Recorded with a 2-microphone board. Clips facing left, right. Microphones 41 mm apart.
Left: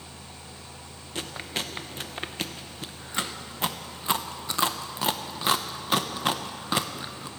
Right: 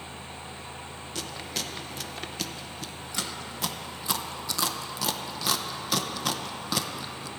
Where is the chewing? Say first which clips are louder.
Left 3 dB; 30° left (ahead or behind), 0.5 m.